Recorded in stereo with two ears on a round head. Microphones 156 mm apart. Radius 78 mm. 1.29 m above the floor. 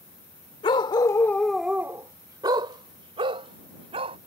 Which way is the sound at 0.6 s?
30° left (ahead or behind).